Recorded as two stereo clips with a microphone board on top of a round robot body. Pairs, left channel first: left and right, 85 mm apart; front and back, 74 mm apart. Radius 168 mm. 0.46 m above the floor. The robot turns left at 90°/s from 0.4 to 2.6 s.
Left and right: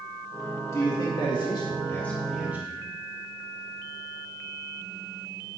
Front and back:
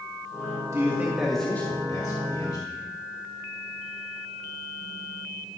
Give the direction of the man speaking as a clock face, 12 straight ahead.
7 o'clock.